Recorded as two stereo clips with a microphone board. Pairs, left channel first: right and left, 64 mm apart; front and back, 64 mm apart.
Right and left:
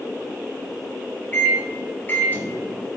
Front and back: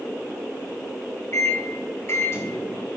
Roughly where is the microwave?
Ahead right.